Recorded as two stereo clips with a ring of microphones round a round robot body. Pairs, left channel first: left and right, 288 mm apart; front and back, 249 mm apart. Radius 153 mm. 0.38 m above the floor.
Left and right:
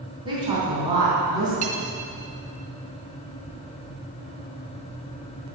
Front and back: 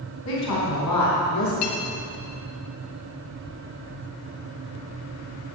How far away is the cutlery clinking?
About 1.2 m.